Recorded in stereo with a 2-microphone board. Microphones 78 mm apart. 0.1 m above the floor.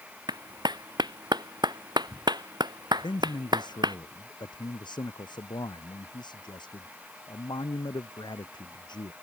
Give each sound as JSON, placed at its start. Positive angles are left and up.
{"t": 0.3, "sound": "a clap", "side_deg": -70}
{"t": 3.0, "sound": "a man speaking", "side_deg": 75}